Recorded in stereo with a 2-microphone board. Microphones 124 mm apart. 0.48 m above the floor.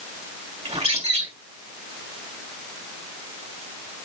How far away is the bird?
About 2 m.